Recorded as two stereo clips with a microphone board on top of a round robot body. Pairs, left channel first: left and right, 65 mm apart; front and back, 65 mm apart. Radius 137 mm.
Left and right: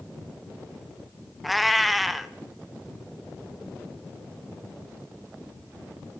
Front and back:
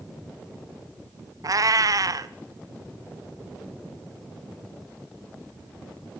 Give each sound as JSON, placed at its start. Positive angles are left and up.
{"t": 1.4, "sound": "a cat meowing", "azimuth_deg": 180, "distance_m": 0.7}